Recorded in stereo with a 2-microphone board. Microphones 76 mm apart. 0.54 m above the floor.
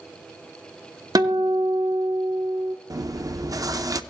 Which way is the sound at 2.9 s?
50° right (ahead or behind).